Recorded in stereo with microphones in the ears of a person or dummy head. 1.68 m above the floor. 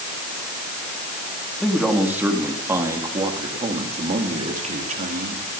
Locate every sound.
1.6 s a man speaking: 5° right (ahead or behind), 4 m; by 5.5 s 55° right (ahead or behind), 4.5 m